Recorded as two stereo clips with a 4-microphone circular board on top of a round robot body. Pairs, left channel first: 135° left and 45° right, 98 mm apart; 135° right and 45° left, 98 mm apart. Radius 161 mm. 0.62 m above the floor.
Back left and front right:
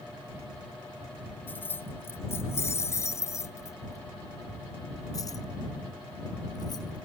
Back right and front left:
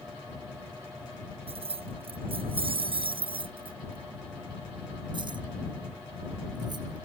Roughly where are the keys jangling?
Ahead left.